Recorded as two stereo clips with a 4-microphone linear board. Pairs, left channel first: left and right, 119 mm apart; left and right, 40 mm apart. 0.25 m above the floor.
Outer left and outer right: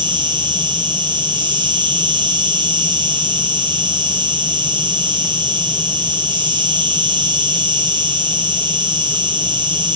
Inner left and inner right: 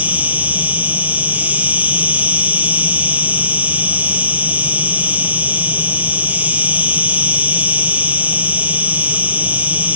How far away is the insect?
About 0.8 m.